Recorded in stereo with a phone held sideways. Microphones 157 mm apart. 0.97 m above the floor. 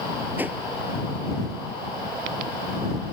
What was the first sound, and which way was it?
A whoosh, 10° right (ahead or behind).